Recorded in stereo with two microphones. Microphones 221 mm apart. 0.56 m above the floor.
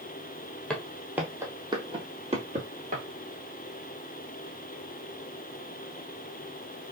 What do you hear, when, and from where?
0.7 s footsteps: 5° left (ahead or behind), 1.0 m; by 3.0 s 40° right (ahead or behind), 1.7 m